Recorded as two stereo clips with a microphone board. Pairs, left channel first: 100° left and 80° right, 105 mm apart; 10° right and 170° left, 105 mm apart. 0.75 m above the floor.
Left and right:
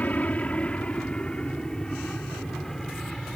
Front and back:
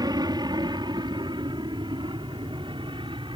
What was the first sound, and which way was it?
An aircraft, 170° left.